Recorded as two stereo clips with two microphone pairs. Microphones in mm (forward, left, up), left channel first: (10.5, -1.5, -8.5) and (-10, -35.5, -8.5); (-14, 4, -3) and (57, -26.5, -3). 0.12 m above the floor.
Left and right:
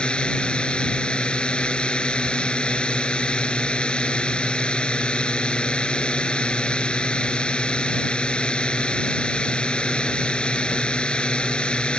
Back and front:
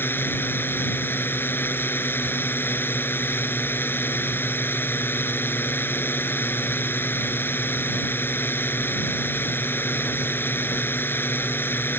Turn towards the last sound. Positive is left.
turn(degrees=110)